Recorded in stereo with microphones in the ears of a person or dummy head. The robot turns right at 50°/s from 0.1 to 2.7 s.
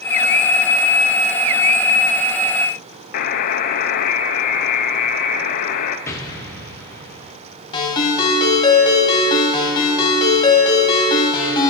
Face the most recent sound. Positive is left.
turn(degrees=25)  # may be behind; listen again after turning